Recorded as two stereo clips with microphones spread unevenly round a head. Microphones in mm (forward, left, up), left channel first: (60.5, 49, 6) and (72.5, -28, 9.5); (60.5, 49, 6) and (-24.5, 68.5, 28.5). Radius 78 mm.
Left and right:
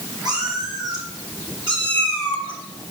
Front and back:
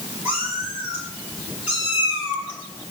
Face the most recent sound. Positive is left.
turn(degrees=-100)